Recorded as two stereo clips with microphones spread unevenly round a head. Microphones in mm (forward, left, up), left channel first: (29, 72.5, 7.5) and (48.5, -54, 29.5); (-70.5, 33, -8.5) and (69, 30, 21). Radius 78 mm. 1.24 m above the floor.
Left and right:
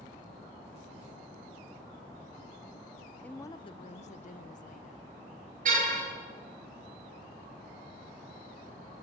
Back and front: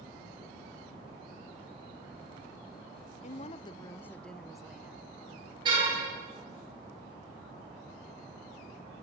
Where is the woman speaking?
175° left, 0.7 m; by 5.1 s 80° left, 1.6 m.